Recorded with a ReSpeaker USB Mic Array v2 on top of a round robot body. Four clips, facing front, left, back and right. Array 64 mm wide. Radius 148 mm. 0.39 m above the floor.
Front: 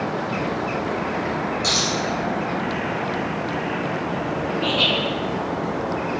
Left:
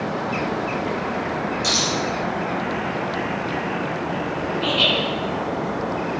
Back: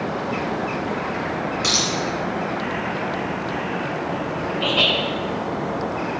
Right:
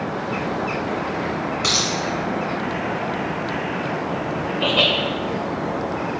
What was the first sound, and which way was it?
A dropped coin, 115° right.